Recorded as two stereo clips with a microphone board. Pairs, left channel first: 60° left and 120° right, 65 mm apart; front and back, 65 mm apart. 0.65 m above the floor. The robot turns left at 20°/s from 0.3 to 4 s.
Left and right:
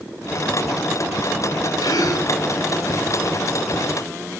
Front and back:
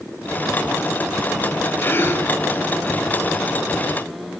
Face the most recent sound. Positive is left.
turn(degrees=10)